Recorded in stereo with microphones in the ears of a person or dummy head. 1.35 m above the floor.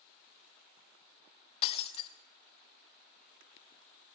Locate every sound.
1.6 s breaking glass: 35° left (ahead or behind), 0.7 m